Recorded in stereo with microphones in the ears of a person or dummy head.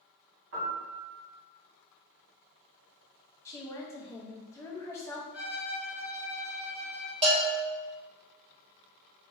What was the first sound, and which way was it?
A piano, 70° right (ahead or behind).